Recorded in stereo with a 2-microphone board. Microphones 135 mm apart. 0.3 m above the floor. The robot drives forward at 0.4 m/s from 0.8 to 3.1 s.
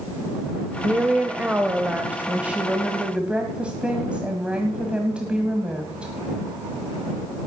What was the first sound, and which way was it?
A woman speaking, 15° right (ahead or behind).